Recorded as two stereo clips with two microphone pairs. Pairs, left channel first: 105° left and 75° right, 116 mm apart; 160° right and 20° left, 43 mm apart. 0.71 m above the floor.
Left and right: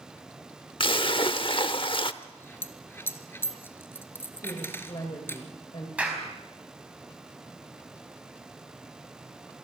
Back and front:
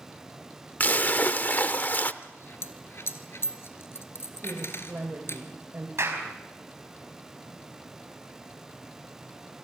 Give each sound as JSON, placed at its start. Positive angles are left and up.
{"t": 0.8, "sound": "a splash", "azimuth_deg": 150, "distance_m": 0.7}
{"t": 2.2, "sound": "a dropped coin", "azimuth_deg": 180, "distance_m": 1.7}
{"t": 4.4, "sound": "a woman speaking", "azimuth_deg": 65, "distance_m": 3.0}
{"t": 6.0, "sound": "a clap", "azimuth_deg": 5, "distance_m": 4.5}